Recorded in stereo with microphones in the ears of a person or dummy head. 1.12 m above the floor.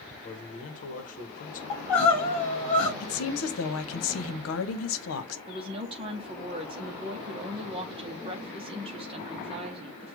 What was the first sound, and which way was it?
A man speaking, 45° left (ahead or behind).